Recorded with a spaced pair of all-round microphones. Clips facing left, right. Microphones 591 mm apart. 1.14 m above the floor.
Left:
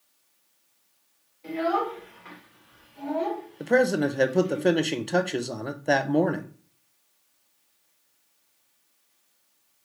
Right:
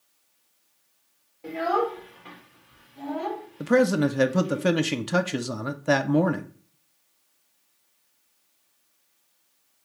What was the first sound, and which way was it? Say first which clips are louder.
A child speaking: right 1 dB; 70° right (ahead or behind).